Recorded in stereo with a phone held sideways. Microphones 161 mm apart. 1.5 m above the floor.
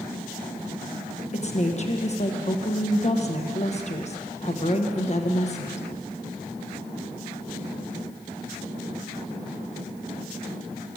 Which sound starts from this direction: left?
A woman speaking, at 1.3 s.